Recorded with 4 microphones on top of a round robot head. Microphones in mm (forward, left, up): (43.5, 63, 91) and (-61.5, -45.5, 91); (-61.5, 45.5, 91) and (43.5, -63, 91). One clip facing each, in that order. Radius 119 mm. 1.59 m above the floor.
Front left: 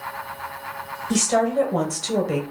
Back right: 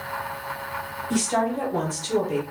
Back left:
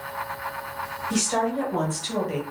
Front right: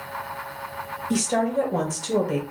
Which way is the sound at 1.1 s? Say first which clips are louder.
Front left 4 dB, front right 2 dB; 5° right.